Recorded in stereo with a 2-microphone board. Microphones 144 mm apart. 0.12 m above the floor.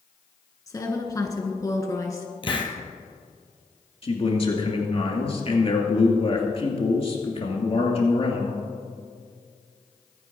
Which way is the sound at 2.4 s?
35° left (ahead or behind).